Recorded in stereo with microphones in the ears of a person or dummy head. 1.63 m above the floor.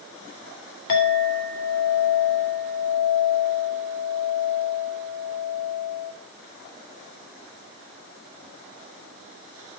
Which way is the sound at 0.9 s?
60° left (ahead or behind).